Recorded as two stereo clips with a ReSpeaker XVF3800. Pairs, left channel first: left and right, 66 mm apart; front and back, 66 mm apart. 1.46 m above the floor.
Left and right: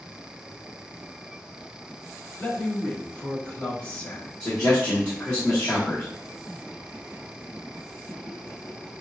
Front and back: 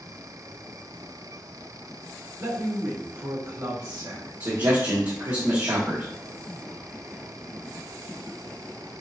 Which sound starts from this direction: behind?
A man speaking, at 2.4 s.